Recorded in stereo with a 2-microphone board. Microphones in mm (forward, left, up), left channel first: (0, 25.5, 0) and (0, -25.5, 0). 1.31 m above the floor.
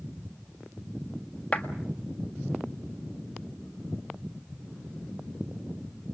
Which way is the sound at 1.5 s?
20° left (ahead or behind).